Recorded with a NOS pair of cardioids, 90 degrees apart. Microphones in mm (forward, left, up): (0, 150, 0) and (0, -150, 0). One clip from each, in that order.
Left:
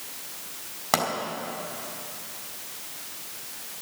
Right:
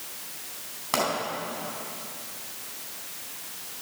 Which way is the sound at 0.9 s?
50° left.